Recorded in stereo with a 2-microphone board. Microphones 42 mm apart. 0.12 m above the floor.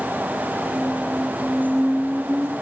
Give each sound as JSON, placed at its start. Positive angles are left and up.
{"t": 0.7, "sound": "a squeak", "side_deg": -50, "distance_m": 4.0}